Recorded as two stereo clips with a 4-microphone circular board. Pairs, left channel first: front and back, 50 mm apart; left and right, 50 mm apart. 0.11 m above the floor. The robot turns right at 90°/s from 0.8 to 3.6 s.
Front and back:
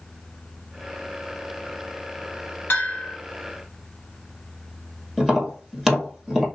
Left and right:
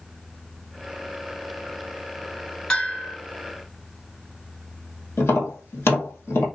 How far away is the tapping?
About 1.9 m.